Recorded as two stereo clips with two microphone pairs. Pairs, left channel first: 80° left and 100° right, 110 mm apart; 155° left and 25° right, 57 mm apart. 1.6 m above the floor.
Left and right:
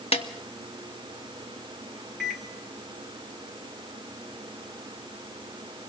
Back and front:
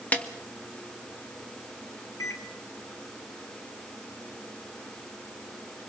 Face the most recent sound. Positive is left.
turn(degrees=170)